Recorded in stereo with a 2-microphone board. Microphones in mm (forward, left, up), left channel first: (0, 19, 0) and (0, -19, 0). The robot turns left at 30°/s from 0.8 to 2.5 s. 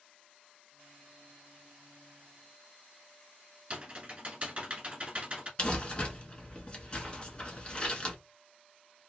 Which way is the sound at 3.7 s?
35° right (ahead or behind).